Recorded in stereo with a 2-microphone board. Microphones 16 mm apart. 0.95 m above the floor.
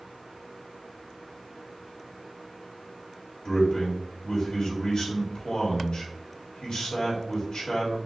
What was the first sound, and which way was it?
A man speaking, 55° left (ahead or behind).